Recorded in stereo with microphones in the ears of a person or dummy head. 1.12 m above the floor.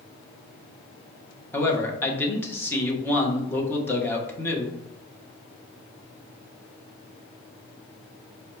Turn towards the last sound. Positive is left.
turn(degrees=10)  # may be behind; listen again after turning